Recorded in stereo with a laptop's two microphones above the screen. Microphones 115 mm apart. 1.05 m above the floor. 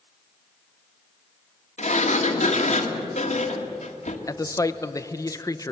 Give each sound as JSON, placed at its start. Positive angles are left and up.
{"t": 1.8, "sound": "a sliding door", "side_deg": 85, "distance_m": 1.8}
{"t": 4.3, "sound": "a man speaking", "side_deg": 30, "distance_m": 0.7}